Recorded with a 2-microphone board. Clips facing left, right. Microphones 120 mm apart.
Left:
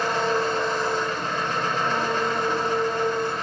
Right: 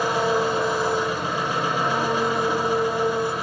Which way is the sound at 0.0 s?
10° right (ahead or behind).